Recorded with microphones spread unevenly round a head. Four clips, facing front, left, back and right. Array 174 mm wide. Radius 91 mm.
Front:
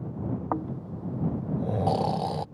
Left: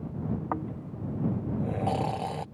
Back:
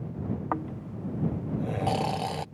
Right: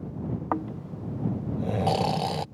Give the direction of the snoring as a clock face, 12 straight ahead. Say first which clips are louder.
Right 3 dB, front 1 dB; 1 o'clock.